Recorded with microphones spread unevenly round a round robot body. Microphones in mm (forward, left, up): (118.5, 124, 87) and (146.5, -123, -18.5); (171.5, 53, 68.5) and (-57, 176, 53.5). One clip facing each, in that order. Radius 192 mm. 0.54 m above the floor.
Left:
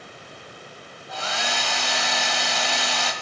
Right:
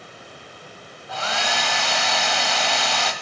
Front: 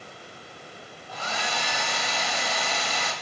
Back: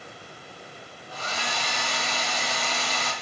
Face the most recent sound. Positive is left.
turn(degrees=-75)